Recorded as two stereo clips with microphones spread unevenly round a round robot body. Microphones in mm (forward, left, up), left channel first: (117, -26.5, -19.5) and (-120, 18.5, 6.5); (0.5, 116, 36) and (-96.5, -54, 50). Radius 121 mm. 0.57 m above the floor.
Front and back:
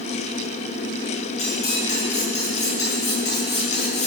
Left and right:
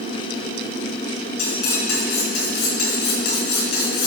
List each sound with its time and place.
1.4 s cutlery clinking: 55° left, 4.5 m